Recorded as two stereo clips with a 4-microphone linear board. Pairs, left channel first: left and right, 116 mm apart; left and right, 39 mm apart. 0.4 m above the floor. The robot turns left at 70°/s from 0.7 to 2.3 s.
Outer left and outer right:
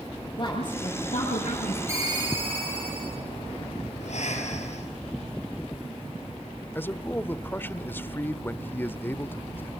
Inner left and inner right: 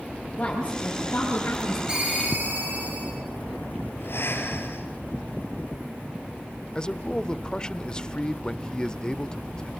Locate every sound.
0.4 s a woman speaking: 140° left, 8 m; by 1.8 s 65° left, 8 m
1.9 s a ringtone: 25° right (ahead or behind), 9.5 m; by 3.2 s 50° right (ahead or behind), 9.5 m
4.0 s breathing: 80° left, 4.5 m
6.8 s a man speaking: 20° left (ahead or behind), 0.8 m